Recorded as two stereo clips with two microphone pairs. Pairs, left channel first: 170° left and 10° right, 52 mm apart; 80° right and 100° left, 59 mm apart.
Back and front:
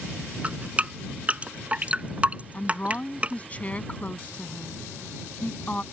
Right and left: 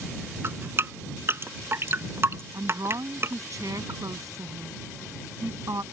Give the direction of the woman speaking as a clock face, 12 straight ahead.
8 o'clock.